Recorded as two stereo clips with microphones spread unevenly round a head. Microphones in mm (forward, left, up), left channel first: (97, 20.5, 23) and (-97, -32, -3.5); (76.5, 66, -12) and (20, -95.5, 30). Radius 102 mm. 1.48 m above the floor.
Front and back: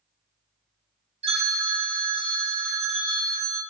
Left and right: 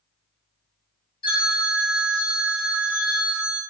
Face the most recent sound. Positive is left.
turn(degrees=140)